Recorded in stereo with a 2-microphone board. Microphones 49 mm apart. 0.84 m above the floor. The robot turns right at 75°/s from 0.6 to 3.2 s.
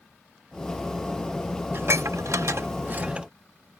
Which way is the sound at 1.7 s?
50° right (ahead or behind).